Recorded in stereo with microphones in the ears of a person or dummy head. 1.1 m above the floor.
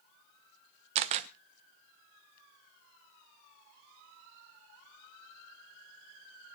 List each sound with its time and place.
0.9 s a camera shutter: 30° right (ahead or behind), 0.6 m